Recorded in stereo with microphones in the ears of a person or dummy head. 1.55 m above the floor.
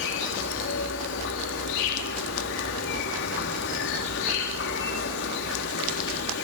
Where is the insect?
70° left (ahead or behind), 2.5 m.